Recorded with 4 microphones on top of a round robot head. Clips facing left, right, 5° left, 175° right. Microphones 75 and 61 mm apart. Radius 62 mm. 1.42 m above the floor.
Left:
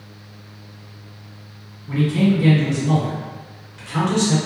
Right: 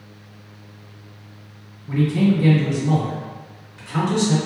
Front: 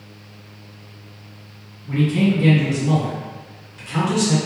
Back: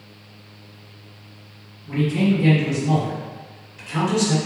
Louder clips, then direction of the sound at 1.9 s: Even, front 2 dB; 20° right.